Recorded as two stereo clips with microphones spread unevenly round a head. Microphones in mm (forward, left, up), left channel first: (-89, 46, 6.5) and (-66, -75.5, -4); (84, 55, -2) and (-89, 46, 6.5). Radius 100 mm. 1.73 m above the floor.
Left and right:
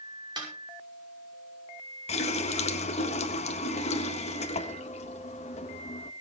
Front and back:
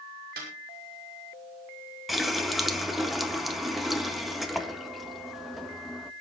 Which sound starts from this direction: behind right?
A snare drum, at 0.4 s.